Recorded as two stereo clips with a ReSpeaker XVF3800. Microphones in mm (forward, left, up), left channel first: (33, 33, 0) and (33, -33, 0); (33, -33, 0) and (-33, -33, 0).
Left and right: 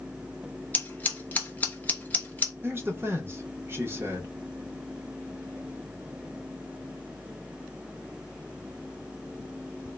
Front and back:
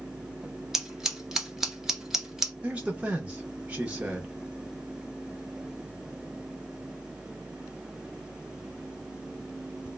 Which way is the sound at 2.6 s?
120° right.